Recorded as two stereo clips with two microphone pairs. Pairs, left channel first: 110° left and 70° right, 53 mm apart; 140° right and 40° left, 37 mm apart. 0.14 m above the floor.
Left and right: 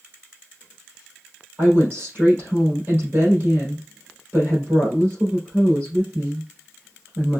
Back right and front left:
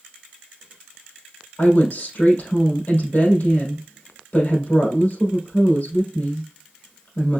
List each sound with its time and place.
1.6 s a woman speaking: 115° right, 3.5 m